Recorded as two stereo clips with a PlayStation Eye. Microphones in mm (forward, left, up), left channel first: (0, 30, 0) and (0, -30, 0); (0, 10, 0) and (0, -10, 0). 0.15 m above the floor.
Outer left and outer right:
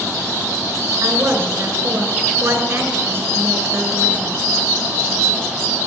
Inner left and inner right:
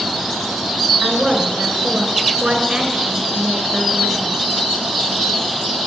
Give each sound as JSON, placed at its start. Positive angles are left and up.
{"t": 1.0, "sound": "a woman speaking", "side_deg": -40, "distance_m": 2.0}